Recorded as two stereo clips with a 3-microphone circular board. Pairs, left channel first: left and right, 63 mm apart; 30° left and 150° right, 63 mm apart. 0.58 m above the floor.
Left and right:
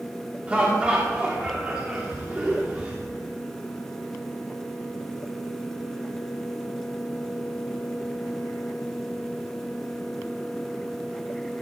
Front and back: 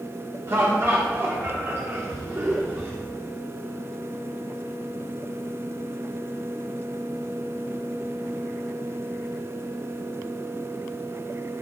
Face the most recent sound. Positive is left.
turn(degrees=-155)